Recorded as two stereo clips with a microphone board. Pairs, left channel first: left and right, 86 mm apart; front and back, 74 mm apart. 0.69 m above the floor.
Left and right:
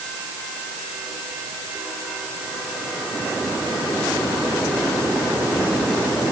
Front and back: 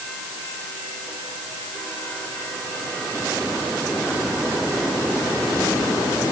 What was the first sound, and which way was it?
Only background noise.